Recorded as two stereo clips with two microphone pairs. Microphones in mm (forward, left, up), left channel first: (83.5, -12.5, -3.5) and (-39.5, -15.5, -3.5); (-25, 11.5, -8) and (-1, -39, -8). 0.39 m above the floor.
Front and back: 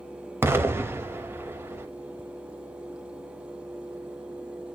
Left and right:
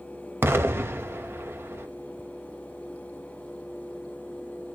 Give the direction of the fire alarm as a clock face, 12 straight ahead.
I don't hear a fire alarm.